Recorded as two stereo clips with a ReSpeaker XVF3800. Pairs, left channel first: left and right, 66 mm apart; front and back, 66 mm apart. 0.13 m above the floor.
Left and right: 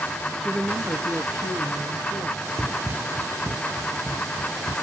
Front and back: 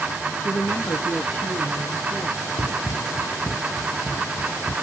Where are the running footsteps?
5° right, 0.5 m; by 4.7 s 85° right, 1.9 m.